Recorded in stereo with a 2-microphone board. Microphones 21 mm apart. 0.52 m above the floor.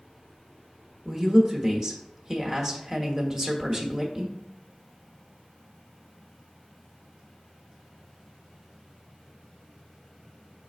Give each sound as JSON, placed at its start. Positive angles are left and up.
{"t": 1.1, "sound": "a woman speaking", "side_deg": -20, "distance_m": 1.1}